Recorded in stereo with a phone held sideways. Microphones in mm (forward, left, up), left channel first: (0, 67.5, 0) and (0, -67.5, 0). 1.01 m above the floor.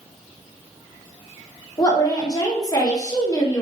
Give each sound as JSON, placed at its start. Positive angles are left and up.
{"t": 1.8, "sound": "a woman speaking", "side_deg": 30, "distance_m": 0.8}